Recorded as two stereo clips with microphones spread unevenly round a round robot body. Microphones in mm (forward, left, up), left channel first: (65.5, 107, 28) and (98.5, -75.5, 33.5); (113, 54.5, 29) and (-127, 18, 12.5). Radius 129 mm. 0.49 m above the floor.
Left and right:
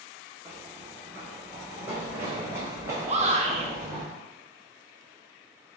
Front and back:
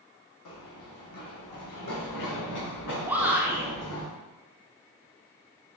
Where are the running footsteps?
Straight ahead, 1.4 m; by 4.0 s 5° right, 3 m.